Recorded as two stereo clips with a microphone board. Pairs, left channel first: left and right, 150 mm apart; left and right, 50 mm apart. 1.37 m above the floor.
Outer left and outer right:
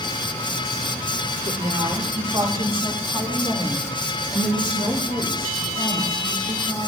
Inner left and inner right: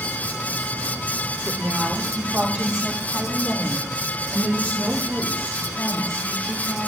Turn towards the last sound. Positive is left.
turn(degrees=40)  # may be behind; listen again after turning